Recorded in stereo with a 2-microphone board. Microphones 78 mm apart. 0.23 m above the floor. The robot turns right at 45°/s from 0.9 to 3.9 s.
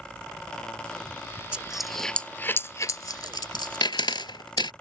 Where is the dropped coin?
15° right (ahead or behind); by 4.7 s 85° left.